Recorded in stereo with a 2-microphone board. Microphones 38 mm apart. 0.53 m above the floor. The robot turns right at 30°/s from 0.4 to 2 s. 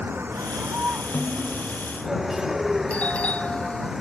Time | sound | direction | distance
0.0 | a vehicle | 60° right | ?
1.1 | a snare drum | 35° left (ahead or behind) | ?
2.9 | a doorbell | 40° left (ahead or behind) | ?